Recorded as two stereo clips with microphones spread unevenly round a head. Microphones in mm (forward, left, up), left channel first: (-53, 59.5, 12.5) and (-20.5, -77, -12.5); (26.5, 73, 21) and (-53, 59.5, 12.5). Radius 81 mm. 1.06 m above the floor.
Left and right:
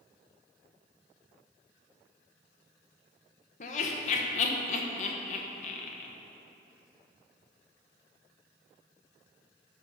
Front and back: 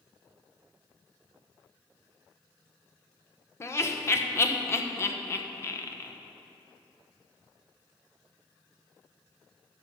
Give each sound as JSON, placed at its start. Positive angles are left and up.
{"t": 3.6, "sound": "laughter", "azimuth_deg": 65, "distance_m": 1.0}